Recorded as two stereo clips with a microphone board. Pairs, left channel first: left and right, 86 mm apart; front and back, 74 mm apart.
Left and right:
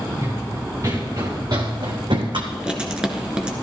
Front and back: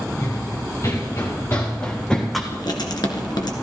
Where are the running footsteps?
35° right, 3.5 m; by 2.4 s 90° right, 1.6 m.